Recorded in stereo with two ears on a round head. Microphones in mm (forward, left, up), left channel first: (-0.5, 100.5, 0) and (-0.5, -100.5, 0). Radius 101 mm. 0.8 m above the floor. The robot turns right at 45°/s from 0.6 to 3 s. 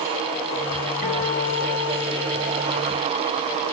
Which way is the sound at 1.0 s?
135° left.